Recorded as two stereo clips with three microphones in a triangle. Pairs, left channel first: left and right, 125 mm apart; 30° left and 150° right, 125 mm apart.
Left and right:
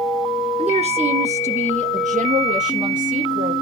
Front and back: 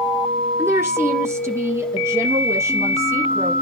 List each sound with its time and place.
0.6 s a woman speaking: 85° right, 2.0 m